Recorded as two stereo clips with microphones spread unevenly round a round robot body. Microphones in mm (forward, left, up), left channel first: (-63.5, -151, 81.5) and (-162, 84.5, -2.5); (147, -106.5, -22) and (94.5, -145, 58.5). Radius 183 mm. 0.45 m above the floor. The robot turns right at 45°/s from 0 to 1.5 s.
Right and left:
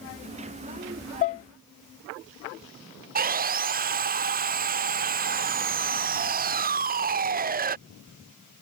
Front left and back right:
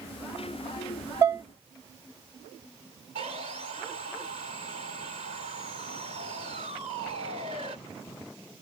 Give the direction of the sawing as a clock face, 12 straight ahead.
7 o'clock.